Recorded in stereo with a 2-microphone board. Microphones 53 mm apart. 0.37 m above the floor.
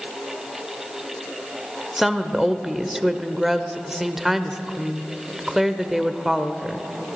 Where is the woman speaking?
5° right (ahead or behind), 0.9 m.